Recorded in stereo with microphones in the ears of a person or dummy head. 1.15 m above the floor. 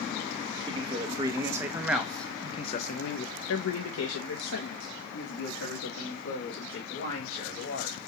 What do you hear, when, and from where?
0.7 s a man speaking: 35° right (ahead or behind), 1.2 m; by 8.0 s 70° left (ahead or behind), 3 m